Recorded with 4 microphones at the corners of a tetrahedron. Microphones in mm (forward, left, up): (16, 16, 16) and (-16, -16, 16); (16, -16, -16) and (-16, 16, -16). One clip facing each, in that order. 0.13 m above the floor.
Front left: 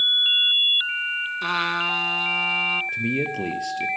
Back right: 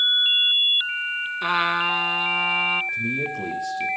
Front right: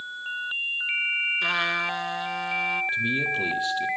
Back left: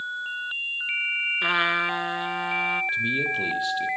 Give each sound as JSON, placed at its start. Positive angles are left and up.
{"t": 1.4, "sound": "a trumpet", "azimuth_deg": 170, "distance_m": 0.5}
{"t": 2.9, "sound": "a man speaking", "azimuth_deg": 45, "distance_m": 2.5}